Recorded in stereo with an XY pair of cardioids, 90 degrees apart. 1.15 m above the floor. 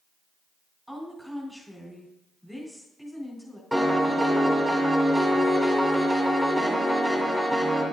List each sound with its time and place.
0.9 s a woman speaking: straight ahead, 3 m
3.7 s a piano: 5° right, 2.5 m